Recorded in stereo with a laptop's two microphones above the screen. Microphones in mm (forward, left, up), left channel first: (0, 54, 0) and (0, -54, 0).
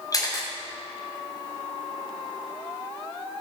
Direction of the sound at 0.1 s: 35° left (ahead or behind).